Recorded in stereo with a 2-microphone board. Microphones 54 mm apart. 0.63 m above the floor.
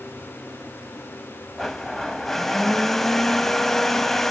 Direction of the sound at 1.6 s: 5° left (ahead or behind).